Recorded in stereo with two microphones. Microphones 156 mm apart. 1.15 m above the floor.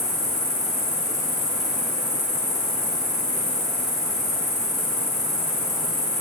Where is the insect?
5° right (ahead or behind), 3 m.